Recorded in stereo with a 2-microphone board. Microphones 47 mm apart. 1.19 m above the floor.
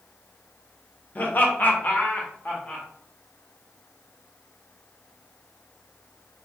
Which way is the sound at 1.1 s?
40° left (ahead or behind).